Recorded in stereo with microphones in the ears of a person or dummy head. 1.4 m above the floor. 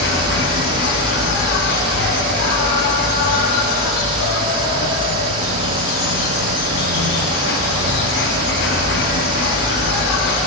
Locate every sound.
0.0 s an insect: 60° left (ahead or behind), 1.2 m